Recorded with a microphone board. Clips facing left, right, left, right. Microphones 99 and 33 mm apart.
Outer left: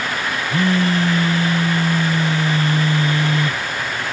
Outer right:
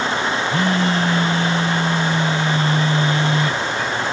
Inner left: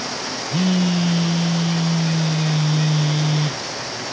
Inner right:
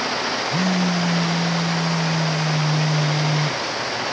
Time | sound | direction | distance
0.5 | a phone buzzing | 40° left (ahead or behind) | 0.6 m